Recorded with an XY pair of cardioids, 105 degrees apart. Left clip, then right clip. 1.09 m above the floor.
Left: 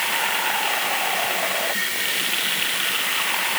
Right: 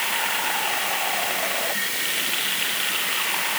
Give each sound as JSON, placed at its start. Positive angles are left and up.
{"t": 0.0, "sound": "running water", "azimuth_deg": 15}